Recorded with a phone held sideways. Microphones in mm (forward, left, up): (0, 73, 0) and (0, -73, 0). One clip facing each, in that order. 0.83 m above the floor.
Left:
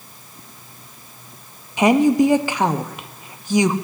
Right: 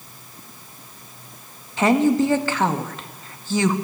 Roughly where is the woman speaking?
Centre.